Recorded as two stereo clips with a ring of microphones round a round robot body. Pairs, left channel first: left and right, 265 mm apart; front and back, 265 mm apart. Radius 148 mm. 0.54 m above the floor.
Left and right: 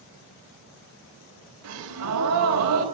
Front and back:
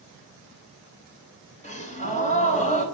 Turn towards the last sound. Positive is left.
turn(degrees=-60)